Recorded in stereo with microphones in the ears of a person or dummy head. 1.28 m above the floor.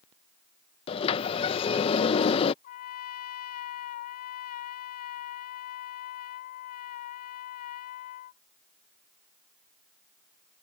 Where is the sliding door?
30° left (ahead or behind).